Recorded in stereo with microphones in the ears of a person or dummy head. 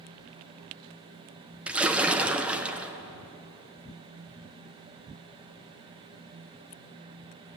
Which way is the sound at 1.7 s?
10° right (ahead or behind).